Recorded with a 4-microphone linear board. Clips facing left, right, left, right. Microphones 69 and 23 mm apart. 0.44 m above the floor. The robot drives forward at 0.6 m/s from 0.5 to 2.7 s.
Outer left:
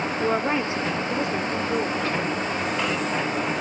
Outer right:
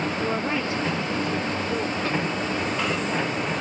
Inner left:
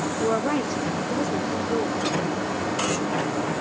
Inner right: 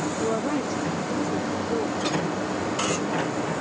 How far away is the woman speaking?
About 0.7 m.